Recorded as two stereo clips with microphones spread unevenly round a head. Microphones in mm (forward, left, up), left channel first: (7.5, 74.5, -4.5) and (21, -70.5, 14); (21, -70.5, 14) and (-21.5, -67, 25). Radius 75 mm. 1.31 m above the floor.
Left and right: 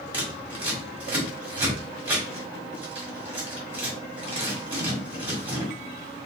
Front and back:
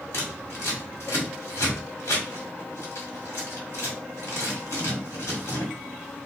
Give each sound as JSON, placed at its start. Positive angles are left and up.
{"t": 0.1, "sound": "scissors", "azimuth_deg": -10, "distance_m": 2.0}